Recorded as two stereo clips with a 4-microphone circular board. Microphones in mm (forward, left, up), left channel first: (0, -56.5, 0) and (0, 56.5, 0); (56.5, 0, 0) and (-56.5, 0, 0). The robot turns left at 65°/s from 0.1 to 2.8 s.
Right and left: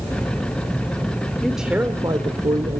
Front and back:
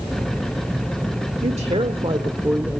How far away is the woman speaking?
About 1.3 m.